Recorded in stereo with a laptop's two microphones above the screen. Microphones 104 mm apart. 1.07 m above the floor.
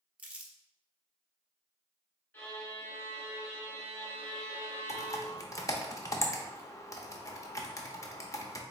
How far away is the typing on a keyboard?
About 0.5 m.